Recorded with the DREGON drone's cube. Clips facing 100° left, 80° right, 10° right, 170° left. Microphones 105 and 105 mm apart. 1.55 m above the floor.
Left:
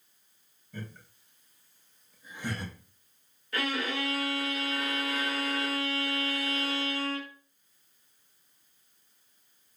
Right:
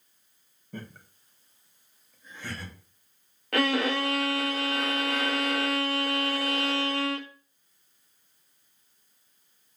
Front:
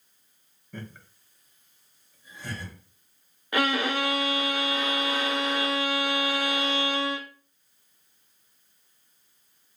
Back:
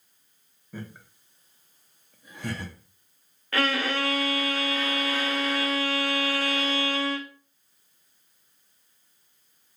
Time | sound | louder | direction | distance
0.7 | laughter | right 2 dB, back 1 dB | 110° right | 1.0 m
3.5 | a violin | right 7 dB, front 1 dB | 85° right | 0.6 m